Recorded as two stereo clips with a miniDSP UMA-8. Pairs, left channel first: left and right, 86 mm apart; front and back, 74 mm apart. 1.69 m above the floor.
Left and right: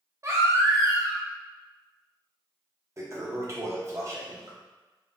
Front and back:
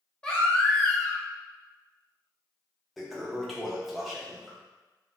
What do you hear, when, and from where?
0.2 s a baby crying: 70° right, 0.7 m
3.0 s a toilet flushing: 90° right, 0.6 m